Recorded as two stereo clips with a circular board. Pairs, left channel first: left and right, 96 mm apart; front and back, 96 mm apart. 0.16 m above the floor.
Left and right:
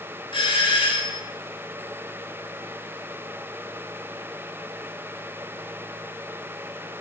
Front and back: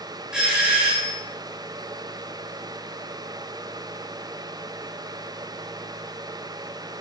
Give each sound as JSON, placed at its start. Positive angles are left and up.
{"t": 0.3, "sound": "a doorbell", "azimuth_deg": 100, "distance_m": 4.5}